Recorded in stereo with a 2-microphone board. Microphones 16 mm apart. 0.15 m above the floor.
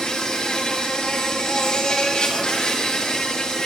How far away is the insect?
About 2.5 m.